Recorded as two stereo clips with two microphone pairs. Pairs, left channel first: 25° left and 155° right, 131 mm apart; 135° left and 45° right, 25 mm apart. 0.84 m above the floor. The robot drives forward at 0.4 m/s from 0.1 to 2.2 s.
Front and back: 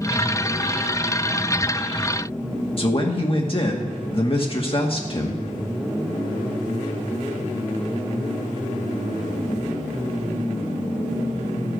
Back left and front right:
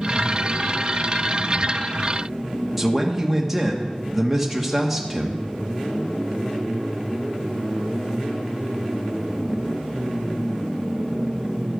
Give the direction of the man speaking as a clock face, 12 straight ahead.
11 o'clock.